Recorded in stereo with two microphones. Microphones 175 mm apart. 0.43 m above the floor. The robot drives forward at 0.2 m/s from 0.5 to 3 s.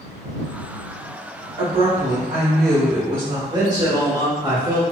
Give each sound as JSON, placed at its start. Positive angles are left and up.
{"t": 1.6, "sound": "a woman speaking", "side_deg": -35, "distance_m": 1.3}
{"t": 3.5, "sound": "a man speaking", "side_deg": -25, "distance_m": 1.2}